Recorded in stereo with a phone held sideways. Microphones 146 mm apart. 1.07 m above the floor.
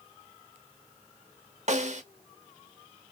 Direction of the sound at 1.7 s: 55° right (ahead or behind).